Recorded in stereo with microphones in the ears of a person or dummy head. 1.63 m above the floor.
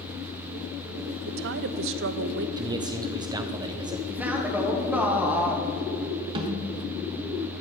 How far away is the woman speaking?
About 0.7 m.